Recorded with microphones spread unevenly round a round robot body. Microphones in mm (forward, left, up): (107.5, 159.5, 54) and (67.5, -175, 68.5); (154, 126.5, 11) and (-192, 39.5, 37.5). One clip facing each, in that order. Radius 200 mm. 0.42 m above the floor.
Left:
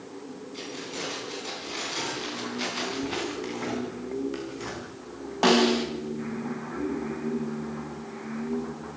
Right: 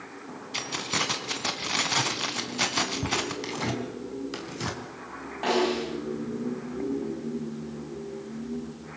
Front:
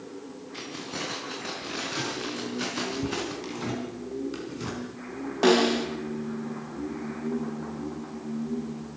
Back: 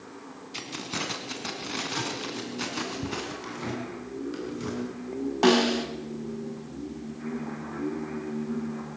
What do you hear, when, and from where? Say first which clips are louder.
0.5 s keys jangling: right 3 dB, back 2 dB; 100° right, 3 m; by 3.3 s 75° right, 3.5 m
3.4 s tearing paper: left 1 dB, front 2 dB; 70° right, 4 m
5.4 s a snare drum: left 4 dB, front 1 dB; 120° left, 3.5 m